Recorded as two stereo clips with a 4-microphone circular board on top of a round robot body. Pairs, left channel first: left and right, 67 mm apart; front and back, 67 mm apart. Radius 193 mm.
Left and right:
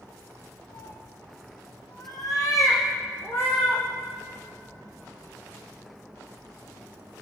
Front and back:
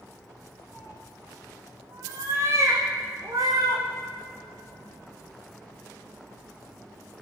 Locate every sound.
0.7 s a cat meowing: 85° left, 3 m; by 3.8 s 150° left, 5.5 m